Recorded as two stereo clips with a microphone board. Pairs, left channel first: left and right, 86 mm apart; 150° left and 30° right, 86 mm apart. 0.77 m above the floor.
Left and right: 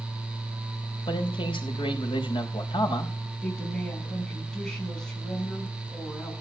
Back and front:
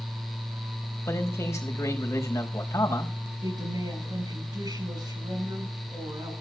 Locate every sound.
1.1 s a man speaking: 95° left, 4.5 m
3.4 s a woman speaking: 10° left, 6.5 m